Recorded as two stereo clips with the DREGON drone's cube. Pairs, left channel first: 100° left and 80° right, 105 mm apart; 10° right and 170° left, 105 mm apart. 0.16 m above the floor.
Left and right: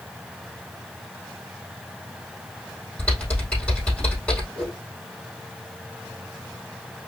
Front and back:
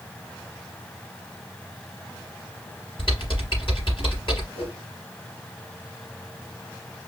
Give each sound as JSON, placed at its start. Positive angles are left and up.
{"t": 3.0, "sound": "typing on a keyboard", "azimuth_deg": 25, "distance_m": 4.0}
{"t": 4.5, "sound": "a whoosh", "azimuth_deg": 15, "distance_m": 3.0}